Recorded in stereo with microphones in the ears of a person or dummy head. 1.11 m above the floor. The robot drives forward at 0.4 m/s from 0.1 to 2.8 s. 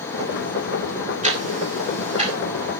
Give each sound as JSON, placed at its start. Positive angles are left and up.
{"t": 1.2, "sound": "ticking", "side_deg": -35, "distance_m": 4.0}